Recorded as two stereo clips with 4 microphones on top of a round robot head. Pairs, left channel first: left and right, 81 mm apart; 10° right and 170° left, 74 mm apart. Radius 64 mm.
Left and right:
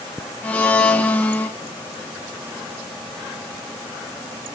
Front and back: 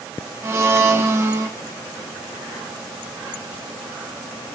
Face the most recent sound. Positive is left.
turn(degrees=145)